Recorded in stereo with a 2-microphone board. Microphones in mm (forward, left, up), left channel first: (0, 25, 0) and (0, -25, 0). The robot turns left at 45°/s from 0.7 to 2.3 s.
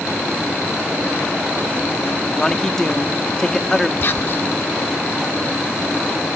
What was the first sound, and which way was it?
A man speaking, 15° left (ahead or behind).